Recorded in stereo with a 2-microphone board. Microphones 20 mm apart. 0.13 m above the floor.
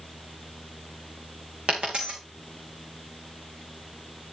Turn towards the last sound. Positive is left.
turn(degrees=-55)  # may be behind; listen again after turning